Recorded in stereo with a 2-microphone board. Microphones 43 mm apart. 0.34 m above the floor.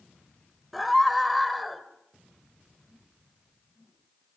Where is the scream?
Centre (ahead or behind), 1.7 m.